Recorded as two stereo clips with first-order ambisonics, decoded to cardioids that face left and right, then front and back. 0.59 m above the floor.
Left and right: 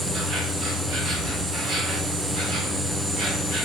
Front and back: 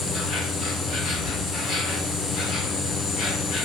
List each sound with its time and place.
0.0 s an insect: 45° right, 0.8 m